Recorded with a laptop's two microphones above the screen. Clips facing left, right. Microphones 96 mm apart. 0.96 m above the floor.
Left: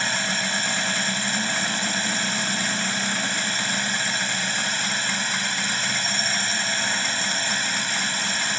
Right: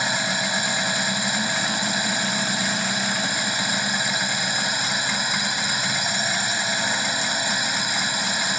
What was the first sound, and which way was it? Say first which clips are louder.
A drone: right 2 dB; 10° right (ahead or behind).